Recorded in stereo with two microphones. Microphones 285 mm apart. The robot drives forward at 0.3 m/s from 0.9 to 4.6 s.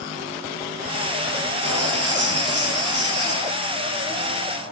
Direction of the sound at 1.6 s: 60° right (ahead or behind).